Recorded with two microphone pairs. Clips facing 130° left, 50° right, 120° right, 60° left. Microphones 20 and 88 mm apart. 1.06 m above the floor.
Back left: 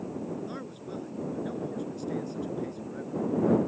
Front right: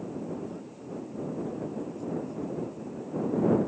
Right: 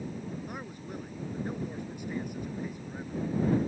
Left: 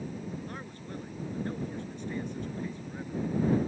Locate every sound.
0.5 s a man speaking: 160° left